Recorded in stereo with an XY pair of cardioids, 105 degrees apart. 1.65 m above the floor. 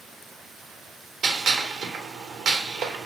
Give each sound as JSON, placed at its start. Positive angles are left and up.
{"t": 1.2, "sound": "a gunshot", "azimuth_deg": -65, "distance_m": 0.8}